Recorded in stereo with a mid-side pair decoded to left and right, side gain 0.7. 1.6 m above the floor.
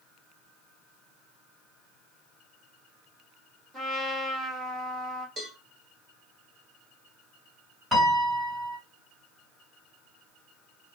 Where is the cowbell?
35° right, 1.1 m.